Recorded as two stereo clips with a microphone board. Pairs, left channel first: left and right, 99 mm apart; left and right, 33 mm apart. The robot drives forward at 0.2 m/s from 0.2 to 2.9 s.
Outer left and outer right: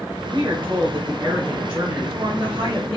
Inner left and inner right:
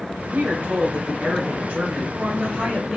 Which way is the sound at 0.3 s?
70° right (ahead or behind).